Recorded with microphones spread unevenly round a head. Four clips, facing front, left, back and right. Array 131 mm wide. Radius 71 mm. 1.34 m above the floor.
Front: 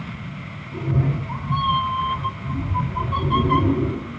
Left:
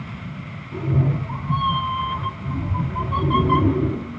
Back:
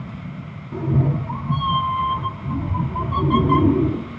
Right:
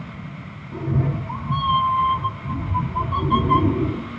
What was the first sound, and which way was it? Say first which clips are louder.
A cat meowing: left 1 dB, back 3 dB; 170° right.